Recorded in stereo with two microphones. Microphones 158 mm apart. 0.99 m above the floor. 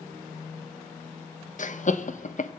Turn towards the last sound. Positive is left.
turn(degrees=55)  # may be behind; listen again after turning